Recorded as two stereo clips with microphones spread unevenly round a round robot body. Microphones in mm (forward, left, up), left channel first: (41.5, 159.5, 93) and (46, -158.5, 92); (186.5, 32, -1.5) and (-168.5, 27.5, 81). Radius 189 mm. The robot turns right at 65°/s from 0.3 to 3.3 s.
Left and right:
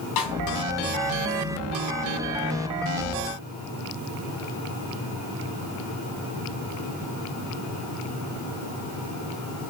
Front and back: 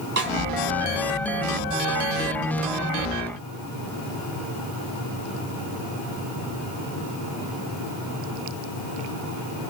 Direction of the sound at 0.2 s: 115° left.